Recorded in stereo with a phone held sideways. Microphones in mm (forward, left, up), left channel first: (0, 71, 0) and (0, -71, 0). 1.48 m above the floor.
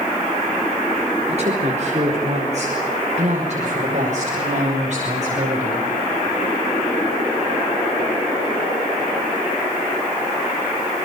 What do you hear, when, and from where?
1.3 s a woman speaking: 45° right (ahead or behind), 4 m; by 5.9 s 55° right (ahead or behind), 7.5 m